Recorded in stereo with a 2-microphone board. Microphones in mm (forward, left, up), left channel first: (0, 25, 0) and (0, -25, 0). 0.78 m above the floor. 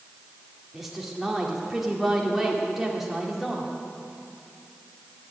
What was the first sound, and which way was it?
A woman speaking, 5° right (ahead or behind).